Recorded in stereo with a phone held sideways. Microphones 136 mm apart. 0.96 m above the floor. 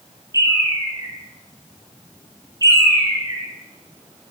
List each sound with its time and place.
0.3 s a bird: 25° right (ahead or behind), 2.5 m